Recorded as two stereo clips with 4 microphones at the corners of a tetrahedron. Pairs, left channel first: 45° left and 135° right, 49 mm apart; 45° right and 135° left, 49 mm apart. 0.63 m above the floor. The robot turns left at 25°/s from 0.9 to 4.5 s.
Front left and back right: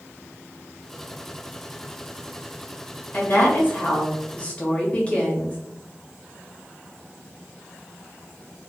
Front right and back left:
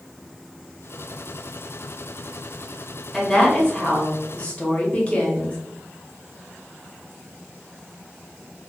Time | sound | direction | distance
3.1 | a woman speaking | 30° left | 0.9 m